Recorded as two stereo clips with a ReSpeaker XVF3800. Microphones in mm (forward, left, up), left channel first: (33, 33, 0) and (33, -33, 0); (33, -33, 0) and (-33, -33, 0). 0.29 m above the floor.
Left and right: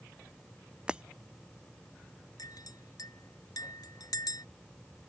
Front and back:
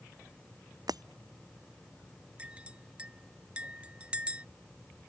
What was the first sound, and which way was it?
Breaking glass, 165° right.